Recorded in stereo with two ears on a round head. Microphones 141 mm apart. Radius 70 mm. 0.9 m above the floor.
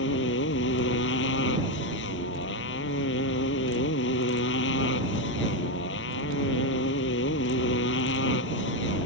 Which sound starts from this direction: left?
A motorcycle, at 0.0 s.